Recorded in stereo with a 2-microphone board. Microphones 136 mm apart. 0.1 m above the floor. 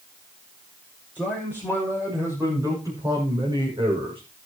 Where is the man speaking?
10° right (ahead or behind), 8 m; by 4.2 s 40° right (ahead or behind), 5.5 m.